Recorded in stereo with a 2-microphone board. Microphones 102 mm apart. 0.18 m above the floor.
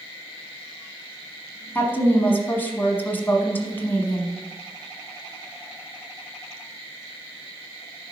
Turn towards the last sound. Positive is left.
turn(degrees=20)  # may be behind; listen again after turning